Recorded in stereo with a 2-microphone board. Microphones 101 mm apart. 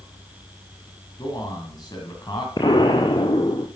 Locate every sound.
1.2 s a man speaking: 45° left (ahead or behind), 2 m
2.6 s an explosion: 50° left (ahead or behind), 1.1 m